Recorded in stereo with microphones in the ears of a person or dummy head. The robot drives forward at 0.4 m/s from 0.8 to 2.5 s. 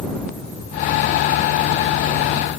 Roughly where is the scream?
No scream in this recording.